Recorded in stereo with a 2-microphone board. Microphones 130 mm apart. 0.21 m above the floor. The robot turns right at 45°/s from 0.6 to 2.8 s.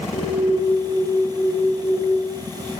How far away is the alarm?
About 3.5 m.